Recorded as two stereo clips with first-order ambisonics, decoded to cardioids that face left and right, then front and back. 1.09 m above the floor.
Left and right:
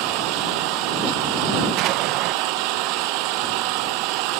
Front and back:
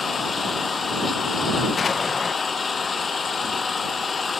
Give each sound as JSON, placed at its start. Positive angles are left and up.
{"t": 0.0, "sound": "an engine running", "azimuth_deg": -75}
{"t": 1.8, "sound": "an explosion", "azimuth_deg": -70}